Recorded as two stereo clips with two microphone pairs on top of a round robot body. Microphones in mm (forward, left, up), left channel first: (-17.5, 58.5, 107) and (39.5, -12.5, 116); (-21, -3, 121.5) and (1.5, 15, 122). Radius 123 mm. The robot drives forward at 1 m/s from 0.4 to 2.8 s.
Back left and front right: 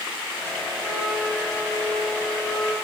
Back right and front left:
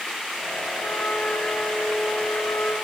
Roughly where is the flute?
Behind right.